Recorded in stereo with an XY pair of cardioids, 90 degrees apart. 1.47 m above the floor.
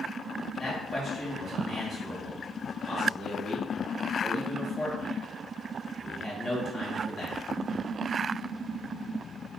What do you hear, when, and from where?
0.6 s a man speaking: 40° left, 1.9 m